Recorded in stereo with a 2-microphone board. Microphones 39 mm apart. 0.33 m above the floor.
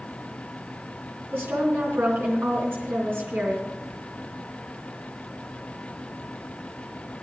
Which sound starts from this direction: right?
A woman speaking, at 1.3 s.